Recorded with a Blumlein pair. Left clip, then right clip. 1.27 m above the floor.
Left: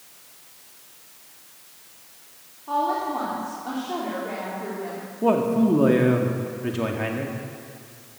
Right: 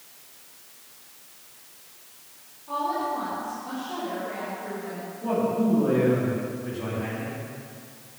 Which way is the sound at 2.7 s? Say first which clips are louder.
Left 3 dB; 25° left.